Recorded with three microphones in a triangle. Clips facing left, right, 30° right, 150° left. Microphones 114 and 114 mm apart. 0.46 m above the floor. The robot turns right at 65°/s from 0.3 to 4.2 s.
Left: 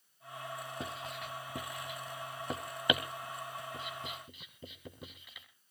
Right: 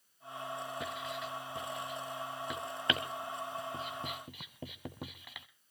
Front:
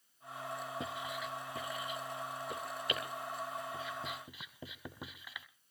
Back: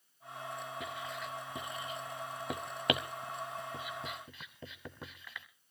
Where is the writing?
30° left, 1.2 m; by 5.5 s 110° right, 1.2 m.